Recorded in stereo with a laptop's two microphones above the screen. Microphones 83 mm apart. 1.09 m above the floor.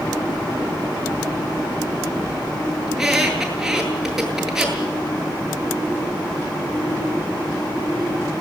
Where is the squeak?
5° right (ahead or behind), 8 m.